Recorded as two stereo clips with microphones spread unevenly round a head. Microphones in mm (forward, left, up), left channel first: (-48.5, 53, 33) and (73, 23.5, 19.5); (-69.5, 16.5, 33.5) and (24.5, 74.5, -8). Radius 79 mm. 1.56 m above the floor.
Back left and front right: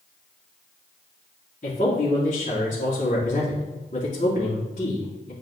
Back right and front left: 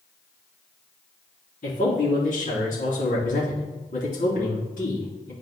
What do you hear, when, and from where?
1.6 s a man speaking: 150° right, 3 m